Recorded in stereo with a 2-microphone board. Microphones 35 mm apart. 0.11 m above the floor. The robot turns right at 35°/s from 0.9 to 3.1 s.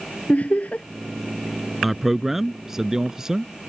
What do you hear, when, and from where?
0.3 s laughter: 50° left (ahead or behind)
1.8 s a man speaking: 5° right (ahead or behind); by 3.5 s 15° right (ahead or behind)